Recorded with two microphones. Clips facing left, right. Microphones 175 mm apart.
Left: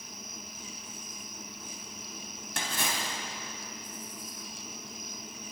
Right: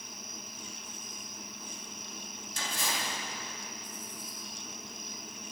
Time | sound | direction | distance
2.6 | a splash | 80° left | 3.5 m